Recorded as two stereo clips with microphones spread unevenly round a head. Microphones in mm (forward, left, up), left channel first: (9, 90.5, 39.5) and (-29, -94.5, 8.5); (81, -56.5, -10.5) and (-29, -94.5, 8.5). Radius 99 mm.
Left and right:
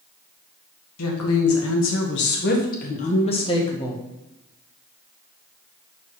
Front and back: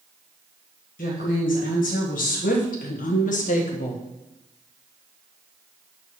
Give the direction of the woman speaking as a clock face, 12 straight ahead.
10 o'clock.